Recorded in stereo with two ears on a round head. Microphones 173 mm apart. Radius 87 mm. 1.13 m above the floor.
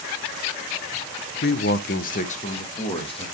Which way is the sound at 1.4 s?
55° left (ahead or behind).